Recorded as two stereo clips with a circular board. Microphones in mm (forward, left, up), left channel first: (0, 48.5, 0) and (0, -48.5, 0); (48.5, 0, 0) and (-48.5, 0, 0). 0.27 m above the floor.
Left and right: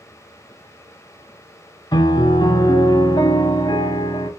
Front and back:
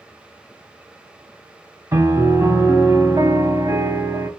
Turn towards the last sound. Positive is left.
turn(degrees=120)